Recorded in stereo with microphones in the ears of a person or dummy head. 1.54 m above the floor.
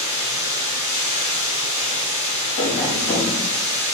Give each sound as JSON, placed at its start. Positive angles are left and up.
{"t": 0.0, "sound": "running water", "side_deg": -30, "distance_m": 1.9}
{"t": 2.6, "sound": "tapping", "side_deg": 25, "distance_m": 0.8}